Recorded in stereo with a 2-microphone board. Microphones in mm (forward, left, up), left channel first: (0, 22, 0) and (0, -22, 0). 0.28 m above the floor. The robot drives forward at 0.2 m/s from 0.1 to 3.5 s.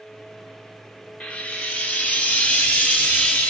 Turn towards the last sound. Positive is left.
turn(degrees=25)  # may be behind; listen again after turning